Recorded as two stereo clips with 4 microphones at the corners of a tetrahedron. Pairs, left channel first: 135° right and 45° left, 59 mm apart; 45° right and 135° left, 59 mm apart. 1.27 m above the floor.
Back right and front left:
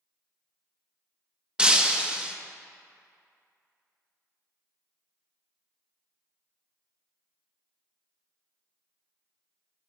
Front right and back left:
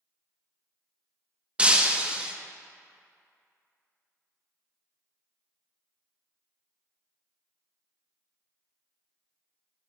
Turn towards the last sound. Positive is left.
turn(degrees=95)